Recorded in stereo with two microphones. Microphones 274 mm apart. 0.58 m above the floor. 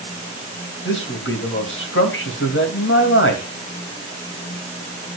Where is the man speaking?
50° left (ahead or behind), 3 m.